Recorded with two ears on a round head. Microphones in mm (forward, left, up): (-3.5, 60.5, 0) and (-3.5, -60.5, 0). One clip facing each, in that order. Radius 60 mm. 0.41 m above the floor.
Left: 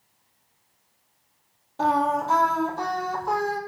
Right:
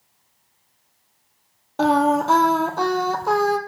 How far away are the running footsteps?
I don't hear running footsteps.